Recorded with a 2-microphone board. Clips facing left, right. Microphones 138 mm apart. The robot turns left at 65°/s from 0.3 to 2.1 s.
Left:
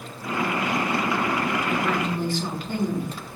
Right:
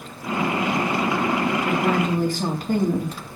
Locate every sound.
1.6 s a woman speaking: 70° right (ahead or behind), 3 m; by 3.2 s 45° right (ahead or behind), 3 m